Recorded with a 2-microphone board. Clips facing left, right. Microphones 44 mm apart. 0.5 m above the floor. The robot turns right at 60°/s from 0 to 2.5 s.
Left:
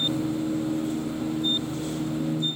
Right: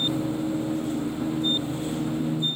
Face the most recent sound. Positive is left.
No sound to turn to.